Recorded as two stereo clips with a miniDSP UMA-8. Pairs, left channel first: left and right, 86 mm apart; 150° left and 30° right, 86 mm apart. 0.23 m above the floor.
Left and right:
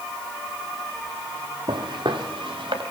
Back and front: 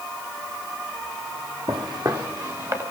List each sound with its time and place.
1.7 s footsteps: 65° right, 1.5 m; by 2.8 s 85° right, 1.9 m